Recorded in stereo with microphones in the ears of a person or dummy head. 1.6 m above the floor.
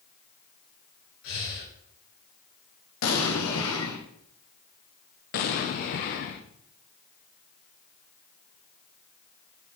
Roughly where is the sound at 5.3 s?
Left.